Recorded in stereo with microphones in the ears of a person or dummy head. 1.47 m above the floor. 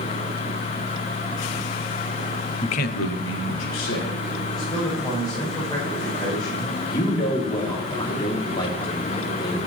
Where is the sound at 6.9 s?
25° left (ahead or behind), 3 m.